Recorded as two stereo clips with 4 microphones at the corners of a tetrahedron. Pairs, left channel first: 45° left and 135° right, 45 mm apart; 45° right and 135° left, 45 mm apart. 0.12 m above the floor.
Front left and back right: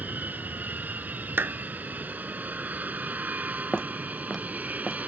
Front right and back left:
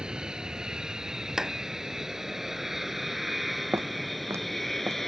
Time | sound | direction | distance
0.0 | an aircraft | 160° right | ?
1.4 | a clap | 150° right | ?
3.7 | footsteps | 115° left | ?